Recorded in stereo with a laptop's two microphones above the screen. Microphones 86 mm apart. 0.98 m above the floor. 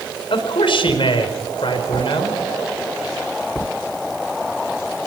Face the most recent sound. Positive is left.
turn(degrees=80)